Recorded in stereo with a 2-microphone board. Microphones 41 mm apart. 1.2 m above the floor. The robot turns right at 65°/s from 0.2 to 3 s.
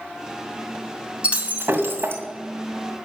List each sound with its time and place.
1.2 s breaking glass: 150° right, 2 m; by 2.2 s 90° right, 2 m